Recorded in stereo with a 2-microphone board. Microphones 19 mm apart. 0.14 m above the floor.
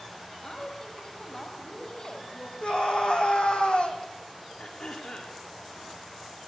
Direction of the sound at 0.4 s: 35° left (ahead or behind).